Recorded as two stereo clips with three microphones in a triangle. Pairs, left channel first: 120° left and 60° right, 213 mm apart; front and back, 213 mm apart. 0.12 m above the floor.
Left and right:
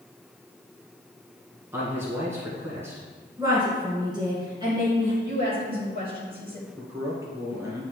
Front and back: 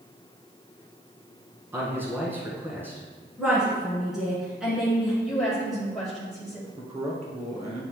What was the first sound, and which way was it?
A man speaking, 120° right.